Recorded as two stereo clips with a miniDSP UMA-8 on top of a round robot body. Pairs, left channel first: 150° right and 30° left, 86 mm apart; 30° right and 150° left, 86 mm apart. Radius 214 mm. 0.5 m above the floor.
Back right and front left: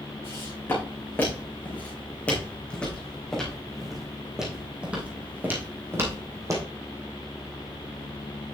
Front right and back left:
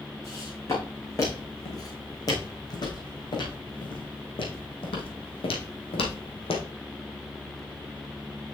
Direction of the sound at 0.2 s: 90° right.